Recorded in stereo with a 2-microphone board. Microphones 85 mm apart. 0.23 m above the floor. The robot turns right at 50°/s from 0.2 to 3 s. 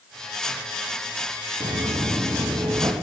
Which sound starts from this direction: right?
Footsteps, at 1.6 s.